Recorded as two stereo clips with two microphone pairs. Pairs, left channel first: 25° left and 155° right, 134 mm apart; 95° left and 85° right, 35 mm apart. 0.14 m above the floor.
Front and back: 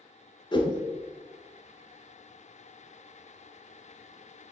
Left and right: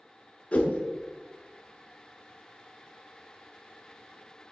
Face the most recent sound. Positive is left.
turn(degrees=60)